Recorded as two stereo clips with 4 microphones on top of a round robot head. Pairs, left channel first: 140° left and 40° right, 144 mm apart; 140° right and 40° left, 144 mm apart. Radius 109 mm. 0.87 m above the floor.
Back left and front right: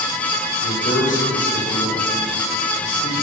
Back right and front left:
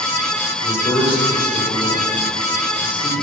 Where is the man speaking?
165° left, 3.5 m.